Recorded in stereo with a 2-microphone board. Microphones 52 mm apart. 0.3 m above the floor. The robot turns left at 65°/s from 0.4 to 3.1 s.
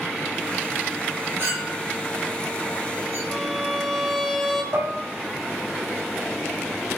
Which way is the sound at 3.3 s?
10° left (ahead or behind).